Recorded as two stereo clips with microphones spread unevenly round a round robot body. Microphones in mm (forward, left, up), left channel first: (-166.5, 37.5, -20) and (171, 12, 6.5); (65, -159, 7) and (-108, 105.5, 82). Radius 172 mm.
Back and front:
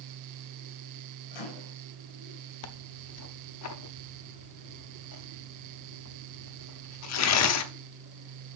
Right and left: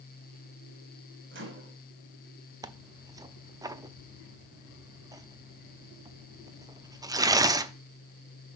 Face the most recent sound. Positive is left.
turn(degrees=-150)